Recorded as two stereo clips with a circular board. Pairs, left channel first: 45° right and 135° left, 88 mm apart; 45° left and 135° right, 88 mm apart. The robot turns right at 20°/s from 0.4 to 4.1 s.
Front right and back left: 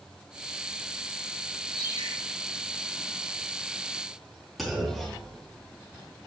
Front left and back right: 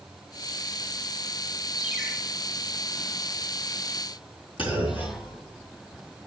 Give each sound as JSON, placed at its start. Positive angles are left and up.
{"t": 1.8, "sound": "a ringtone", "azimuth_deg": -55, "distance_m": 4.5}
{"t": 4.6, "sound": "a clunk", "azimuth_deg": 45, "distance_m": 3.0}